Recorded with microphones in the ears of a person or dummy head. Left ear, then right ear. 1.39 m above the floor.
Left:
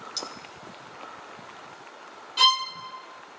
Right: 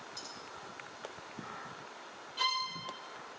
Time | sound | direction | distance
0.2 | cutlery clinking | 50° left (ahead or behind) | 1.5 m
2.4 | a violin | 40° left (ahead or behind) | 1.5 m